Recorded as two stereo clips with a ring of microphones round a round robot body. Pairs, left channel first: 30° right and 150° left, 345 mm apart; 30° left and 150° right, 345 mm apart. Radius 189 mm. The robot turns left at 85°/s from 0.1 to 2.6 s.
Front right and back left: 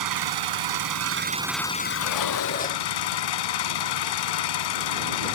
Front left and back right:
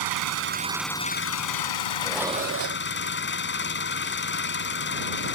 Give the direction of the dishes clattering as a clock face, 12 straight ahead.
2 o'clock.